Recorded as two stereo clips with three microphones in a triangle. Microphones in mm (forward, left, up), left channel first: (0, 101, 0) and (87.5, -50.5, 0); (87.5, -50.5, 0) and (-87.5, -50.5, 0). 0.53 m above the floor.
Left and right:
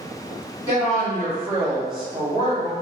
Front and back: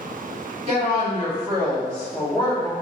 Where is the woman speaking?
170° left, 1.5 m; by 2.7 s 95° right, 1.3 m.